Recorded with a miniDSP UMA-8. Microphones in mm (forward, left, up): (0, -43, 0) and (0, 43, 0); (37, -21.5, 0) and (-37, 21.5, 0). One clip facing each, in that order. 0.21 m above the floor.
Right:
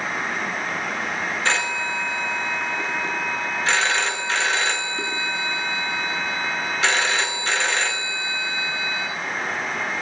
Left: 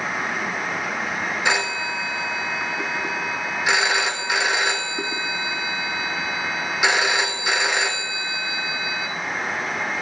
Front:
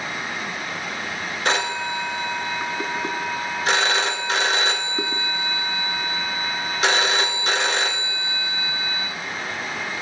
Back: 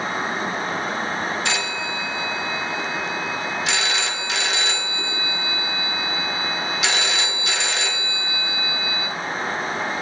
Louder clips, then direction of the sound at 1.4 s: Left 1 dB, front 3 dB; 15° left.